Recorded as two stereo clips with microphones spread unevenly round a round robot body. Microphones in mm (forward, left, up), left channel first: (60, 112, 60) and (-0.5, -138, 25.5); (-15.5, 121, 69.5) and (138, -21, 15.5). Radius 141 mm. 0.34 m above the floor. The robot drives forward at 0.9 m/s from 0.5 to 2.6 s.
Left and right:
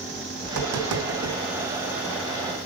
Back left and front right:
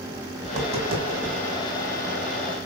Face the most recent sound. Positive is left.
turn(degrees=-135)